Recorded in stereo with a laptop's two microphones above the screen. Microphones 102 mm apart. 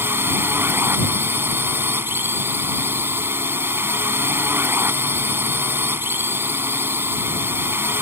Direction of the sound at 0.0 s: 20° right (ahead or behind).